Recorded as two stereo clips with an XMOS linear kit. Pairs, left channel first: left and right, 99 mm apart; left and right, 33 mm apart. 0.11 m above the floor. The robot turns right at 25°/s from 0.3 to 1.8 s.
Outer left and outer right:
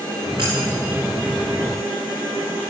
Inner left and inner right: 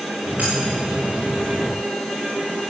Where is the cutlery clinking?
40° right (ahead or behind), 6.5 m; by 0.5 s 45° right (ahead or behind), 6.5 m.